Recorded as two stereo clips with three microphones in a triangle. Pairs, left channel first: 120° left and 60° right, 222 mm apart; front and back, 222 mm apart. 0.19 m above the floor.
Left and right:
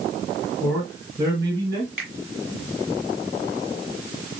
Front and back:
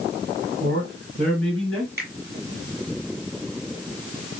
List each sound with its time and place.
0.6 s a man speaking: 145° right, 3 m; by 1.9 s 115° right, 2.5 m
2.0 s a finger snap: 145° right, 3 m